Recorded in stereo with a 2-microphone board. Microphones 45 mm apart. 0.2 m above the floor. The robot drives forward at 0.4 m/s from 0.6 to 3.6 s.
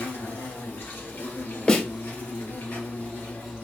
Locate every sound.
0.0 s an insect: 60° left (ahead or behind), 2.5 m; by 3.6 s 45° left (ahead or behind), 3 m
1.7 s a snare drum: 20° left (ahead or behind), 1.6 m